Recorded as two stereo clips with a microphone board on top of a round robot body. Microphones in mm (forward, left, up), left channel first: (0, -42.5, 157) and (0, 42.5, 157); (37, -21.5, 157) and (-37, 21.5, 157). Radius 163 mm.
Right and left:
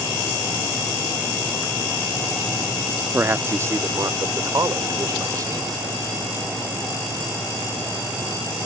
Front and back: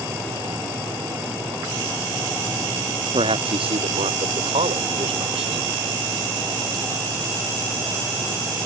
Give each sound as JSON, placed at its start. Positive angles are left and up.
{"t": 3.1, "sound": "a man speaking", "azimuth_deg": 155}